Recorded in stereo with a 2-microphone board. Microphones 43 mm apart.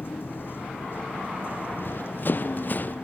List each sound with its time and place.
0.0 s a vehicle: 50° left (ahead or behind)
1.7 s running footsteps: 50° left (ahead or behind); by 3.0 s 40° left (ahead or behind)